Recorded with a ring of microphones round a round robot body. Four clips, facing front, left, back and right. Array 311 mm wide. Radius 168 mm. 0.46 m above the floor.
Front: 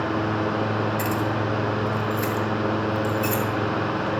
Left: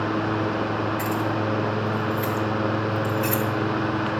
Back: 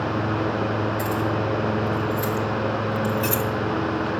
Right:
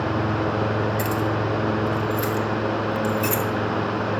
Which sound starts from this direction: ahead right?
Keys jangling, at 1.0 s.